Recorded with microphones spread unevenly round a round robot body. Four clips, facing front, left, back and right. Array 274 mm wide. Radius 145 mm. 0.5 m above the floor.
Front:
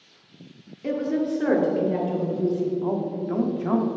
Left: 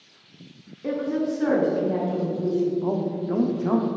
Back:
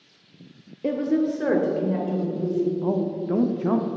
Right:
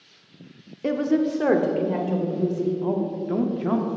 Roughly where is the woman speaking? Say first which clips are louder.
Right 3 dB, back 2 dB; behind right.